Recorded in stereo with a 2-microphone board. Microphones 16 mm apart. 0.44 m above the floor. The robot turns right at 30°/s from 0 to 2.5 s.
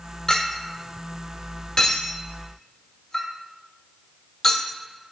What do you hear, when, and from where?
0.3 s a clink: 45° left (ahead or behind), 1.0 m; by 4.7 s 30° left (ahead or behind), 1.0 m